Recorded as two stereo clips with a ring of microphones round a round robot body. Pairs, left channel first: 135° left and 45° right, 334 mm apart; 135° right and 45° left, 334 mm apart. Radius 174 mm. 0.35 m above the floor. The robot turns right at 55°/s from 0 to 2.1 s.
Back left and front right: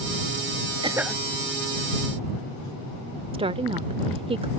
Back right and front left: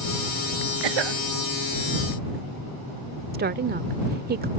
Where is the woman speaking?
15° left.